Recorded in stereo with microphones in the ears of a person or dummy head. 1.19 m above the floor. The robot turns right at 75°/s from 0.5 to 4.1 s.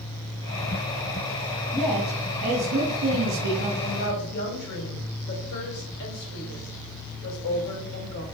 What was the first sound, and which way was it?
A man speaking, 165° left.